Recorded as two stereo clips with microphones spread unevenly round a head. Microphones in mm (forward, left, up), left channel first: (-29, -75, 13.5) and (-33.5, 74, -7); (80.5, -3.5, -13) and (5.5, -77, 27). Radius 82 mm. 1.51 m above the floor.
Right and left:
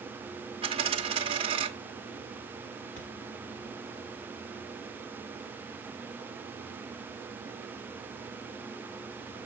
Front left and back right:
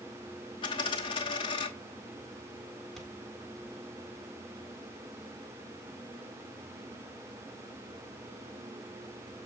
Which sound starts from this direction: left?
A dropped coin, at 0.6 s.